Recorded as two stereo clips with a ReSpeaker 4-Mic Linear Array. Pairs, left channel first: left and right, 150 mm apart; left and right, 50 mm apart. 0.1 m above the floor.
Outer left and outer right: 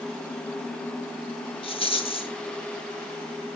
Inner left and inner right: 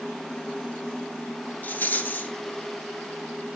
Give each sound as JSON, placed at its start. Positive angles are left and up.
{"t": 1.6, "sound": "a rattle", "side_deg": 40, "distance_m": 1.7}